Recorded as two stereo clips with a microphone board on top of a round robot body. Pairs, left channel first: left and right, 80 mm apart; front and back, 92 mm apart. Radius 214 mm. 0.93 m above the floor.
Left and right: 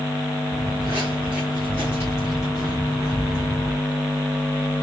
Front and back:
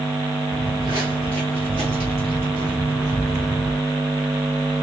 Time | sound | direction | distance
0.5 | footsteps | 120° right | 1.0 m